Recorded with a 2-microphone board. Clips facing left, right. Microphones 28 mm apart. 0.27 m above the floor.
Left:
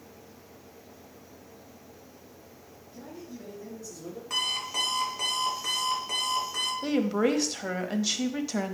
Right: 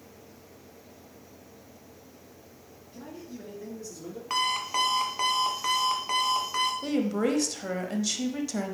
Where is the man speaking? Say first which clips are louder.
Right 1 dB; 50° right (ahead or behind), 3.5 m; by 4.2 s 45° right (ahead or behind), 5 m.